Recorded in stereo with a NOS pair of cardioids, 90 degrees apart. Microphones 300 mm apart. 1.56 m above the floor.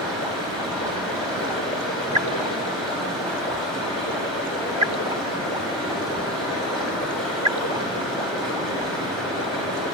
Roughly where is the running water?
Ahead.